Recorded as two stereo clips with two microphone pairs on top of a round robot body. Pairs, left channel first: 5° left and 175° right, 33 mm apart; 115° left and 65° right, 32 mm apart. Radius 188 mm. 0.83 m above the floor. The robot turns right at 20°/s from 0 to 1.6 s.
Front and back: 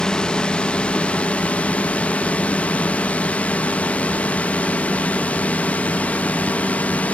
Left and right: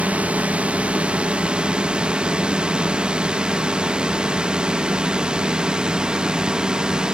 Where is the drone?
55° right; by 7.2 s 5° right.